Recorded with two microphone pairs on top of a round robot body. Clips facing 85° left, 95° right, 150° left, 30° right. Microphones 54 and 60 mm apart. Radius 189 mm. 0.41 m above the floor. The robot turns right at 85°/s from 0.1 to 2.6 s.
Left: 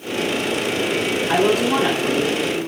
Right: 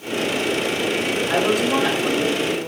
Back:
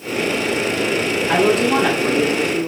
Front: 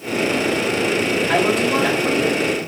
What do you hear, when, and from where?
1.3 s a woman speaking: 100° left, 1.8 m; by 2.7 s 145° right, 1.8 m